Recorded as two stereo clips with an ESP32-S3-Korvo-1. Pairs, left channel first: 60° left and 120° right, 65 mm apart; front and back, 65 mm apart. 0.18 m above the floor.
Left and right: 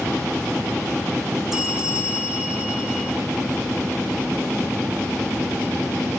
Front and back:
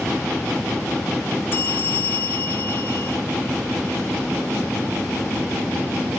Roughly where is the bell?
Ahead right.